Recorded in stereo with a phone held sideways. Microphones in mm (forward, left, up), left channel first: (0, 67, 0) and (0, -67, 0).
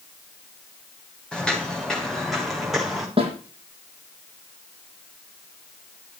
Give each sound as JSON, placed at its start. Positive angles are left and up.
{"t": 1.3, "sound": "footsteps", "side_deg": 5, "distance_m": 9.0}
{"t": 3.2, "sound": "a snare drum", "side_deg": -40, "distance_m": 9.0}